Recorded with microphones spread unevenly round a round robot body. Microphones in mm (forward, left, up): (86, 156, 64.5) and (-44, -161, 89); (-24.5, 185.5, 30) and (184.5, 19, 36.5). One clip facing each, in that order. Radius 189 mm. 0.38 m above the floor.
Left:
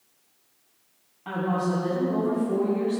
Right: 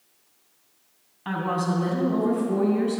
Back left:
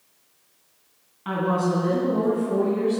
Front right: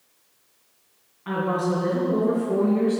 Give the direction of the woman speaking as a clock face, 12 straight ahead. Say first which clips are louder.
Left 1 dB, back left 1 dB; 6 o'clock.